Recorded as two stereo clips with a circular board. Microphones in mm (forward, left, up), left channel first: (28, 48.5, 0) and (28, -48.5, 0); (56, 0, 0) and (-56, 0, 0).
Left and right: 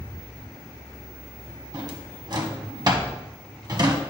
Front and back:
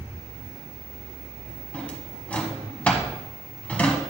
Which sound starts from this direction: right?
A drawer, at 1.7 s.